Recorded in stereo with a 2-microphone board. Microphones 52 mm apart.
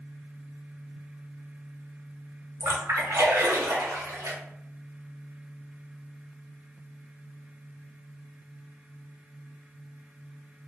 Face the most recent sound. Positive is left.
turn(degrees=-60)  # may be behind; listen again after turning